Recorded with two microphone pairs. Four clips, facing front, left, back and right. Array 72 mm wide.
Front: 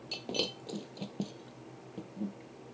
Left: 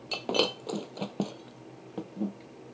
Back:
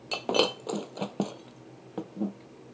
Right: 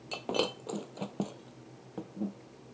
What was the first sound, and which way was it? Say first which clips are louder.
Breaking glass: left 4 dB, back 11 dB; 175° left.